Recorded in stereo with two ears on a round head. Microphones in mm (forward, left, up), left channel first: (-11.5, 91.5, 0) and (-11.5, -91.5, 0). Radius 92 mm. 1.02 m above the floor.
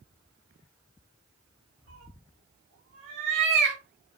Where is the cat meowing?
80° right, 2.5 m; by 3.8 s 55° right (ahead or behind), 1.7 m.